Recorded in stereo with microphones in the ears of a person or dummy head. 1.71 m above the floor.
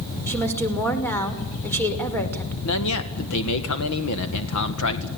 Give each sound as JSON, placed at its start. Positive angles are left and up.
{"t": 0.3, "sound": "a woman speaking", "side_deg": 10, "distance_m": 5.5}
{"t": 2.6, "sound": "a man speaking", "side_deg": 80, "distance_m": 1.9}